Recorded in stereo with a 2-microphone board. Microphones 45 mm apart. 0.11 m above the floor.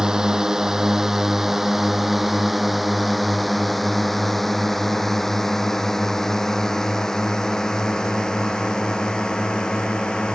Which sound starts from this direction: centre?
A drone, at 0.0 s.